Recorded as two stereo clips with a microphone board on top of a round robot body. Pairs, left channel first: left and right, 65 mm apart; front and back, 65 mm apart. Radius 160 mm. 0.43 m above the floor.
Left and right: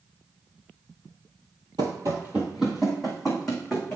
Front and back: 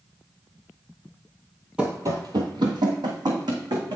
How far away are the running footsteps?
About 0.5 m.